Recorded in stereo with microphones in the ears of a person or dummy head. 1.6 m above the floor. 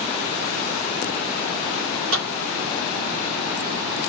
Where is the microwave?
80° right, 2 m.